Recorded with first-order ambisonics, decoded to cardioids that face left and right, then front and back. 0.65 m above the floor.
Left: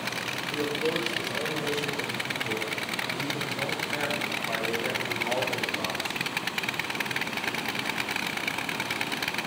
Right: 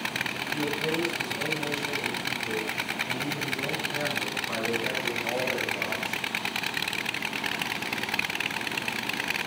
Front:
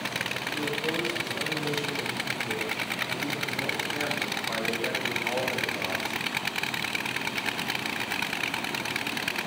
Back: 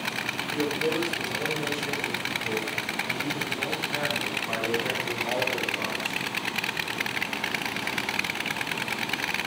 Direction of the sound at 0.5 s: 120° left.